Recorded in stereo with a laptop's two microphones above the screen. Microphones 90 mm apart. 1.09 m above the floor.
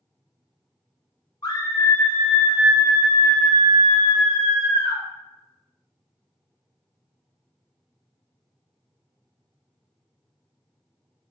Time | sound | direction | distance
1.4 | a scream | 40° left (ahead or behind) | 0.8 m